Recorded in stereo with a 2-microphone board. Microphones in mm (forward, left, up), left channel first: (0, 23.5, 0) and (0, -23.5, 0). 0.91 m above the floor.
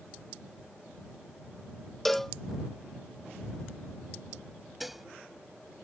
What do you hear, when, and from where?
2.0 s a cowbell: 5° left (ahead or behind)
4.8 s dishes clattering: 5° right (ahead or behind)